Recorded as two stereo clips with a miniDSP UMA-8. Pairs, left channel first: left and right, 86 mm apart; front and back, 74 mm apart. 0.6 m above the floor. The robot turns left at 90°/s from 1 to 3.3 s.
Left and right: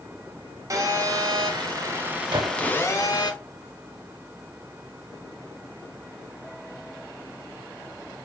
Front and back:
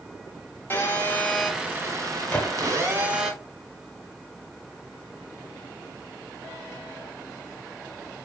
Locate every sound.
0.7 s a phone buzzing: 55° right, 0.6 m; by 3.3 s 100° left, 0.6 m
2.3 s a gunshot: 65° right, 0.8 m; by 2.7 s 100° right, 0.8 m